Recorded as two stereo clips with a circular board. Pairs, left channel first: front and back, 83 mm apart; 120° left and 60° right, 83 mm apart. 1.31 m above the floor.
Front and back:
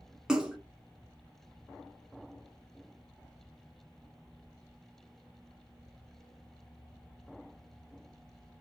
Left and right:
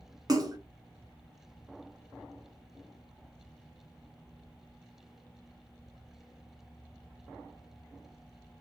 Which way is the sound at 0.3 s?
100° right.